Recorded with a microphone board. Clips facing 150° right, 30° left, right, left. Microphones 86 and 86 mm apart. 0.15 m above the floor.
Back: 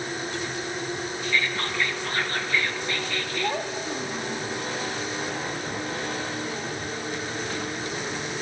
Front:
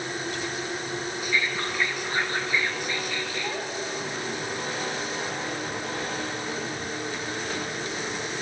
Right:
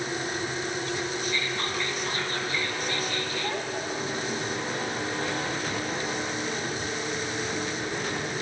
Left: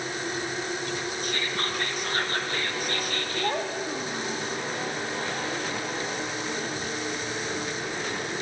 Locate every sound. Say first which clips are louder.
1.2 s whispering: back 1 dB, even; 105° left, 3 m
3.4 s a child speaking: back 3 dB, left 2 dB; 140° left, 6.5 m